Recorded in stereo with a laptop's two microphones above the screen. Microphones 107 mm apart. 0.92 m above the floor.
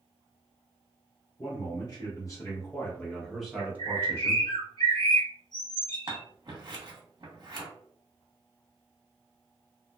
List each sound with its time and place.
1.4 s a man speaking: 45° left (ahead or behind), 1.3 m; by 4.5 s 40° right (ahead or behind), 0.8 m
3.6 s a bird: 45° left (ahead or behind), 0.8 m
6.1 s scissors: 45° right (ahead or behind), 0.9 m